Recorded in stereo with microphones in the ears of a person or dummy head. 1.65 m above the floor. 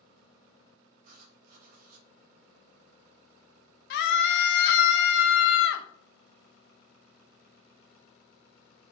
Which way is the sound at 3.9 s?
65° left (ahead or behind).